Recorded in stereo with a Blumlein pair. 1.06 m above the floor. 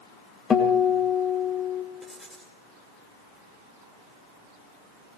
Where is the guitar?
20° left, 2.0 m.